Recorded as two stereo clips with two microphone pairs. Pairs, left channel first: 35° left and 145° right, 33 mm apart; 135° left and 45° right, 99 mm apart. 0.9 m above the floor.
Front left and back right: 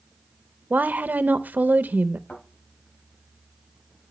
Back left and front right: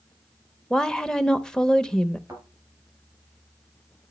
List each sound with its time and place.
0.7 s a woman speaking: 140° right, 0.7 m
2.3 s a thud: 20° left, 5 m